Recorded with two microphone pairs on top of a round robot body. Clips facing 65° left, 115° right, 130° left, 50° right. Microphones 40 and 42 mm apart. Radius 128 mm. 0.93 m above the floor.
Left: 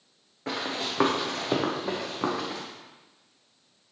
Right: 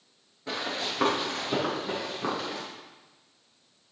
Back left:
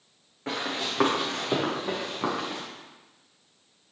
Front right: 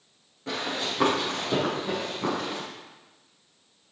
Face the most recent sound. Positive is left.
turn(degrees=60)